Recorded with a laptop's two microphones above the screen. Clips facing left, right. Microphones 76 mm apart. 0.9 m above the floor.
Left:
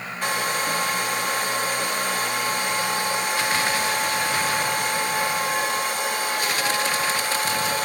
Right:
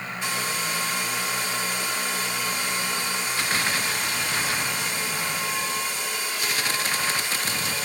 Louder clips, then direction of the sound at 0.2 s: Left 6 dB; 50° left (ahead or behind).